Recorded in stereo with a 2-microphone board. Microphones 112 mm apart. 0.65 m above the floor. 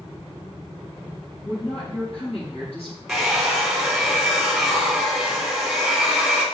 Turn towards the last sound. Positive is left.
turn(degrees=0)  # may be behind; listen again after turning